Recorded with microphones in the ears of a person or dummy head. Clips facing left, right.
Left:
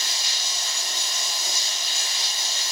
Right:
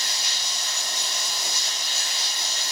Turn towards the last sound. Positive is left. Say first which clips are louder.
# even
turn(degrees=-45)  # may be behind; listen again after turning